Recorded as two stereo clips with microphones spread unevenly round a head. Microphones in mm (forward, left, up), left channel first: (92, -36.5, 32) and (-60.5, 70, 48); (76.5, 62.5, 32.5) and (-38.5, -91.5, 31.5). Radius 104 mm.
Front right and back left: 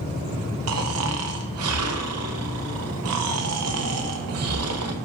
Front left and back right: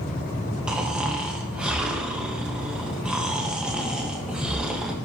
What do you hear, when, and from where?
0.7 s snoring: 145° left, 0.9 m